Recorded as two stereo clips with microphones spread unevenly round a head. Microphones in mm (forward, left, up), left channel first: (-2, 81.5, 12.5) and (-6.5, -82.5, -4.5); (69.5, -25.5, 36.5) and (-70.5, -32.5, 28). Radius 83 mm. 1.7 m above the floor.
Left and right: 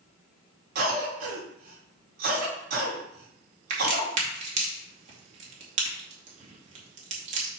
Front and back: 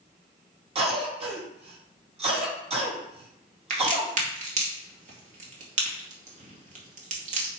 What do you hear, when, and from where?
0.8 s a cough: 130° right, 3.5 m
3.7 s a crack: 140° right, 2.5 m